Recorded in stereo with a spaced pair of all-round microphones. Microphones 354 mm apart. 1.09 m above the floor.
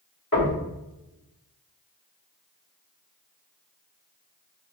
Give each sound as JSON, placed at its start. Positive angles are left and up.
{"t": 0.3, "sound": "knocking", "side_deg": 75, "distance_m": 1.8}